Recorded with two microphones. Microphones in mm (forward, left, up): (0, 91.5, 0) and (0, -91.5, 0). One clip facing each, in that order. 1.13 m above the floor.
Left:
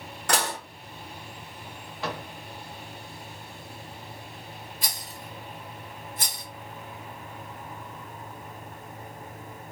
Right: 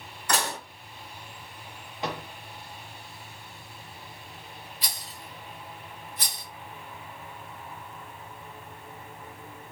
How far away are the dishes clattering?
About 1.3 m.